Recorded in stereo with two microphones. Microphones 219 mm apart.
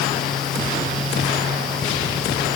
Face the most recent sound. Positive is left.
No sound to turn to.